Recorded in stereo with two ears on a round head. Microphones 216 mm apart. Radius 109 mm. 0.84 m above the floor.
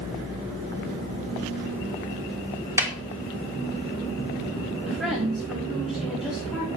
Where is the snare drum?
10° right (ahead or behind), 1.2 m.